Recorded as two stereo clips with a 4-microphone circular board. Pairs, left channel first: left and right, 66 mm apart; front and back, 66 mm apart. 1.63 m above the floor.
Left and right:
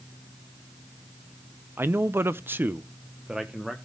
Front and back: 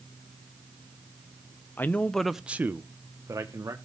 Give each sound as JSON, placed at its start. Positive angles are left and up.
{"t": 1.8, "sound": "a man speaking", "azimuth_deg": -50, "distance_m": 0.7}